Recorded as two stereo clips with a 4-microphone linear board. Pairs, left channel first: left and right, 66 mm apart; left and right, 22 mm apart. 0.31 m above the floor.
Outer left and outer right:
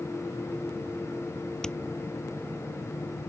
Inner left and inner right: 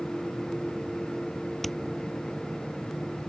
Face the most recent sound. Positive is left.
turn(degrees=10)  # may be behind; listen again after turning